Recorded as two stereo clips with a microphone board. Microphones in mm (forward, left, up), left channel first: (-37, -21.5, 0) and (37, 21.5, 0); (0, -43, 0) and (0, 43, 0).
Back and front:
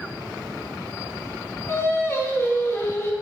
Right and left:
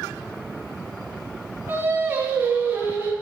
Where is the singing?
155° left, 1.3 m.